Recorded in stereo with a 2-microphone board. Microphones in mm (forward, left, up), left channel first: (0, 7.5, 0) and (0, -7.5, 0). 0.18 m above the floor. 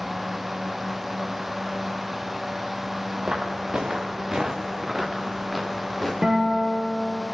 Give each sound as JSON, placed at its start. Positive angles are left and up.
{"t": 3.2, "sound": "footsteps", "side_deg": -75, "distance_m": 1.4}
{"t": 6.2, "sound": "a guitar", "side_deg": -30, "distance_m": 1.8}